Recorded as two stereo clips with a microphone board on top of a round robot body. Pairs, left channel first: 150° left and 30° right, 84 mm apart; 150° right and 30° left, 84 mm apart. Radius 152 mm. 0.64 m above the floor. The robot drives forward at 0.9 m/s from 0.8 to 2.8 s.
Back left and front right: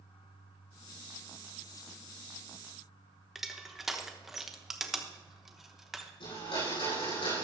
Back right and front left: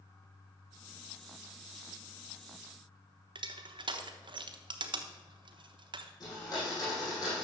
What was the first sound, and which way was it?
Crushing, 55° left.